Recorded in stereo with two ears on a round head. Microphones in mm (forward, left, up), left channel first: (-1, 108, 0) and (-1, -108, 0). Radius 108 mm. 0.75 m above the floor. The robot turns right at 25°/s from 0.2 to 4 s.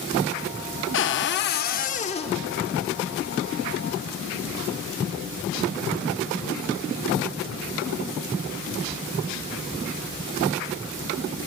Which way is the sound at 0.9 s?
120° left.